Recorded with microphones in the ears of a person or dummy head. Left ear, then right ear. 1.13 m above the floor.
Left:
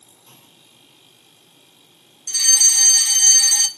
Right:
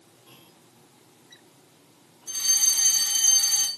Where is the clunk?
60° left (ahead or behind), 9 m.